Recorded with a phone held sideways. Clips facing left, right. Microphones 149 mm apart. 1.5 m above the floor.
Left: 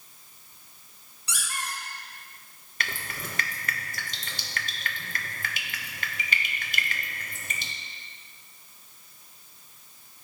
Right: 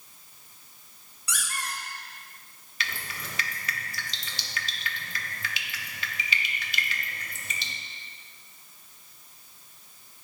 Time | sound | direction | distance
1.3 | a squeak | 30° left (ahead or behind) | 1.3 m
2.8 | dripping | 50° left (ahead or behind) | 0.8 m